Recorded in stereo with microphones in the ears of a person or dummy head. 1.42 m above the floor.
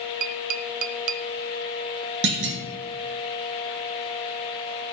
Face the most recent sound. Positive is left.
turn(degrees=-60)  # may be behind; listen again after turning